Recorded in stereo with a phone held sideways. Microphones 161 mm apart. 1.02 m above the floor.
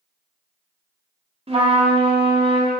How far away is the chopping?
No chopping in this recording.